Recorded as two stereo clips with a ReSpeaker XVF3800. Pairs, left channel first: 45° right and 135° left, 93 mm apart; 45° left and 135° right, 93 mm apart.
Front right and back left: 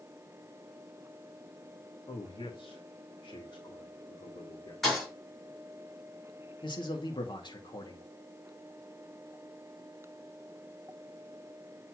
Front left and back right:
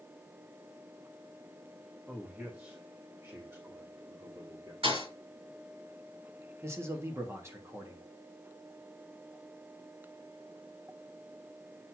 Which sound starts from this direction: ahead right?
A man speaking, at 2.1 s.